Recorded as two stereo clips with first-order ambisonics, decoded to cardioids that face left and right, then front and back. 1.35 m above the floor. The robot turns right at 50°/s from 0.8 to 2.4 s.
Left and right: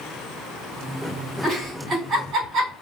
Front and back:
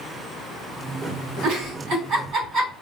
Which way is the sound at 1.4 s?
175° right.